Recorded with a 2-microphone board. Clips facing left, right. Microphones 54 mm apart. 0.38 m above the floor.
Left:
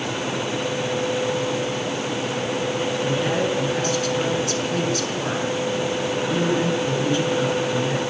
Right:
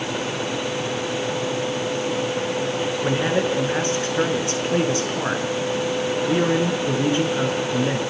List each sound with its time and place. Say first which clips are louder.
3.0 s a man speaking: right 2 dB; 35° right (ahead or behind), 5 m